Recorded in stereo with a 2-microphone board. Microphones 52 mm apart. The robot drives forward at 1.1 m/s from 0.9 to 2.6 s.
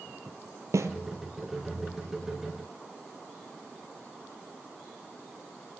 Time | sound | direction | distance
0.7 | a snare drum | 80° right | 1.7 m